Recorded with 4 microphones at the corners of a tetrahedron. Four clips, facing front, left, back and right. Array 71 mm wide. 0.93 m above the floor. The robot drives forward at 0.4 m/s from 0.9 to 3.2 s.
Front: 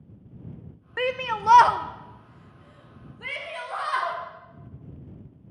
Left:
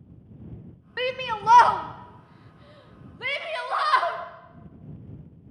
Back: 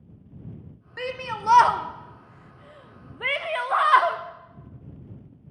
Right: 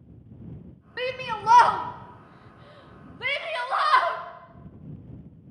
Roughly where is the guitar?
I don't hear a guitar.